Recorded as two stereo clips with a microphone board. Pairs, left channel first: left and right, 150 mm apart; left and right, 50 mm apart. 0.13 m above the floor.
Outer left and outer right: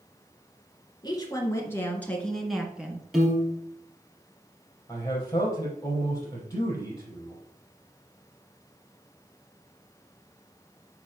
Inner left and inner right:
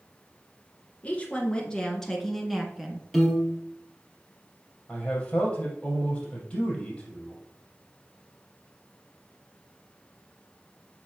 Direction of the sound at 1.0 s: 25° left (ahead or behind).